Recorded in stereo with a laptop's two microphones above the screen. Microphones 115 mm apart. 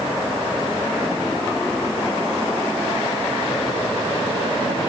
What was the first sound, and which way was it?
Only background noise.